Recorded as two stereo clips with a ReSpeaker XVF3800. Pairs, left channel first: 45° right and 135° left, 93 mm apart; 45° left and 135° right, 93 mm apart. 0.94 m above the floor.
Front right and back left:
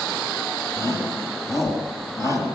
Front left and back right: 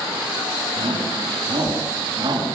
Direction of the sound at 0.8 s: 105° right.